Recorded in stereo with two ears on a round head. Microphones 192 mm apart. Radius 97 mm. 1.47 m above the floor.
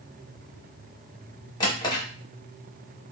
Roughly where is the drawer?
Centre.